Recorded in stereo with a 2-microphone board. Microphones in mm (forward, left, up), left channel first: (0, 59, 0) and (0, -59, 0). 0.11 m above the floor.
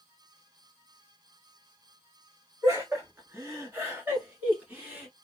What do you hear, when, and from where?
2.6 s laughter: 20° right (ahead or behind), 1.6 m; by 5.1 s 10° right (ahead or behind), 1.7 m